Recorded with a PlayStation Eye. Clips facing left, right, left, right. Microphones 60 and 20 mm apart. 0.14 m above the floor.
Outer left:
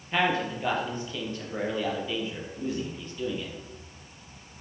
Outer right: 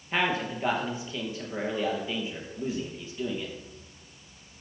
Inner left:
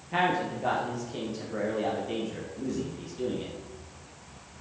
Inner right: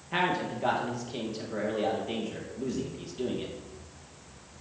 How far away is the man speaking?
About 3 m.